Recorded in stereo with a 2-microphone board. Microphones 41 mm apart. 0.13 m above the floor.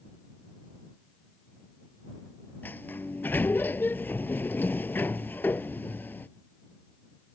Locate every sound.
2.6 s a sliding door: 55° left (ahead or behind)